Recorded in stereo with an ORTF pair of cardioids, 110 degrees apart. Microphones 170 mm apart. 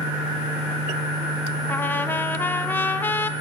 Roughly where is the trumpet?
Ahead.